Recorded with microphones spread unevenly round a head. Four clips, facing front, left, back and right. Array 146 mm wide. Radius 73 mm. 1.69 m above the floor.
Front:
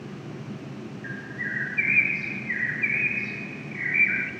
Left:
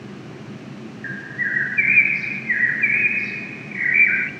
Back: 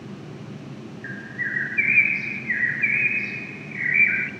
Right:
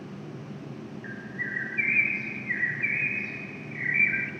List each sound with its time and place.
1.0 s a bird: 100° left, 0.9 m